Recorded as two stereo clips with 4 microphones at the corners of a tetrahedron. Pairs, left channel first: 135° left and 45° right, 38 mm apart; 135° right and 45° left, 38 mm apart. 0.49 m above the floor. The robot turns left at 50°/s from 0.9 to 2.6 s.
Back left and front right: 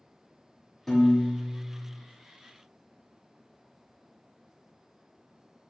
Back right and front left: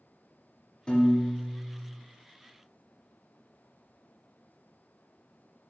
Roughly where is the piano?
Behind right.